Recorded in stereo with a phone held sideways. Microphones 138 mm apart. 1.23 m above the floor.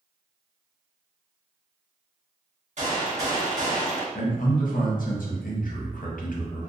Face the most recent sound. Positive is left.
turn(degrees=80)